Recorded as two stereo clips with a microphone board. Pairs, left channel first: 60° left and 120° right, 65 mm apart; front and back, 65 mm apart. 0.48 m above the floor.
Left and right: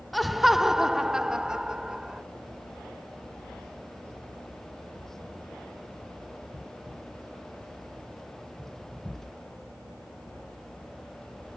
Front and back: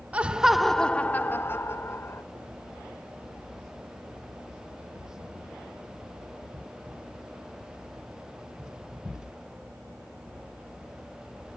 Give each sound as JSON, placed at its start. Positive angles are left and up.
{"t": 0.1, "sound": "laughter", "azimuth_deg": 150, "distance_m": 0.7}